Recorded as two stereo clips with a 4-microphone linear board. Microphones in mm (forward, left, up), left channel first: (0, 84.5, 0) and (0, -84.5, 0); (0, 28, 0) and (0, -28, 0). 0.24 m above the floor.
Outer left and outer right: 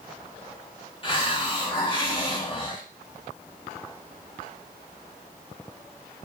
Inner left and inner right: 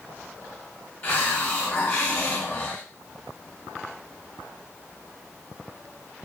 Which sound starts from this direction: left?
A hiss, at 1.0 s.